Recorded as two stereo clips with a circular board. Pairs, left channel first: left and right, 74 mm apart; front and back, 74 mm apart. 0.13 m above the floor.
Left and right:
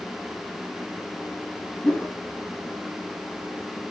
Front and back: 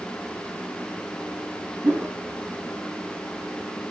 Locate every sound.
1.8 s a whoosh: 150° left, 1.4 m